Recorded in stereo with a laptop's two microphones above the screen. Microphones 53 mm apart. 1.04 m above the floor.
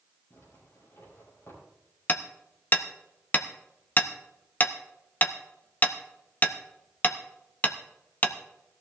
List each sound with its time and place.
0.3 s a zipper: 55° left (ahead or behind), 6 m
2.1 s hammering: 30° left (ahead or behind), 0.6 m